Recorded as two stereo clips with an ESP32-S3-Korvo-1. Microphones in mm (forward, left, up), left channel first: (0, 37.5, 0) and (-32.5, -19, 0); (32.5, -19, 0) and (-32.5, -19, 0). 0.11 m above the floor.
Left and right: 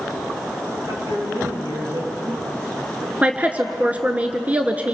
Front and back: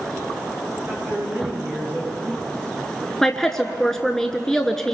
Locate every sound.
0.9 s a woman speaking: 120° right, 9.5 m
3.2 s a woman speaking: 75° right, 1.2 m